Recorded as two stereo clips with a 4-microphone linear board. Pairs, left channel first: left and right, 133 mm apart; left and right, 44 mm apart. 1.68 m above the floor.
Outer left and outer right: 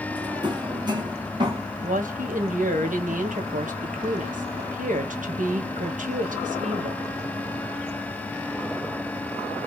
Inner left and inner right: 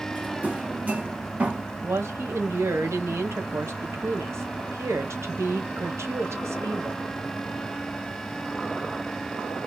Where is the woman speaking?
75° right (ahead or behind), 1.4 m.